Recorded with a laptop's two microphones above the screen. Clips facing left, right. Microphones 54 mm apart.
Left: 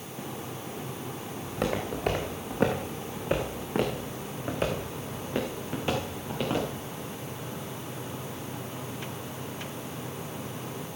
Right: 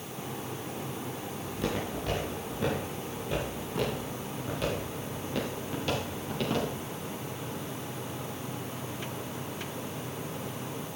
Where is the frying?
No frying in this recording.